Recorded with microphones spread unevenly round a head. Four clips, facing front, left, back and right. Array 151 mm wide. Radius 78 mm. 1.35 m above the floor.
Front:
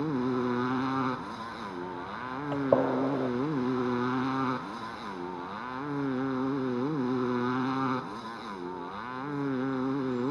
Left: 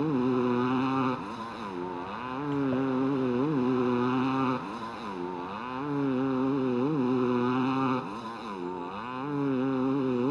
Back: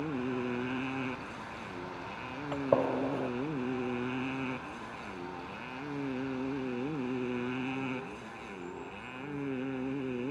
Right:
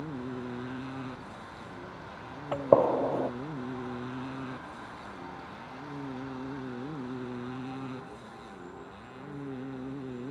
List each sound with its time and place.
0.0 s a motorcycle: 75° left
2.5 s a gunshot: 80° right